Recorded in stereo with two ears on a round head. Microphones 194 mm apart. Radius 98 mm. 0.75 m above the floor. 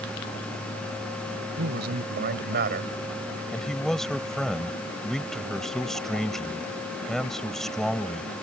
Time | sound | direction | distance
1.6 | a man speaking | 50° right (ahead or behind) | ?
3.5 | a man speaking | centre (ahead or behind) | ?